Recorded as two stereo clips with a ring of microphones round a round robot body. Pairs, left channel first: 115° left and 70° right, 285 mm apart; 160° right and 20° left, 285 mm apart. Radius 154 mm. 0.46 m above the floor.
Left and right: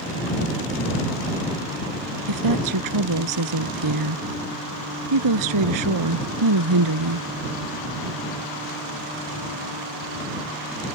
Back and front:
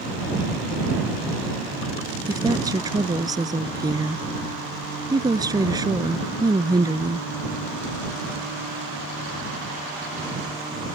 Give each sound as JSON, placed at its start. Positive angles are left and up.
{"t": 2.3, "sound": "a woman speaking", "azimuth_deg": -55}